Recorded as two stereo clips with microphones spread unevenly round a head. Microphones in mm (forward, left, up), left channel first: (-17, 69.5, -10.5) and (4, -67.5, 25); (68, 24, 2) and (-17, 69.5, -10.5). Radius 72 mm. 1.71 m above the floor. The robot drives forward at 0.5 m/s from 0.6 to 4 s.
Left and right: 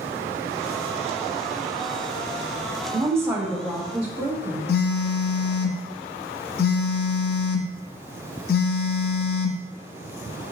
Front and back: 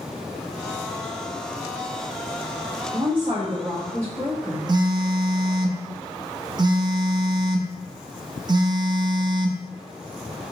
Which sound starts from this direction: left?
A phone buzzing, at 4.7 s.